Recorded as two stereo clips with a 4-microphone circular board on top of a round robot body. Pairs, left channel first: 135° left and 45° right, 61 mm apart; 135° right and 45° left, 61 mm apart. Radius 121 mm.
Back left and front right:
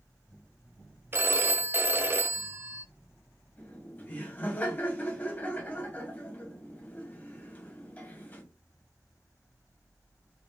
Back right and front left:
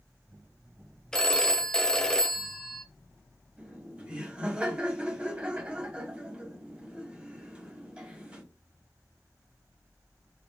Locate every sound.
1.1 s a phone ringing: 60° right, 0.6 m
3.6 s laughter: 105° left, 1.4 m